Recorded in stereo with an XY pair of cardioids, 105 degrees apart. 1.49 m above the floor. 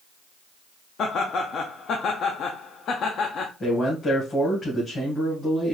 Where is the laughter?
60° left, 0.6 m.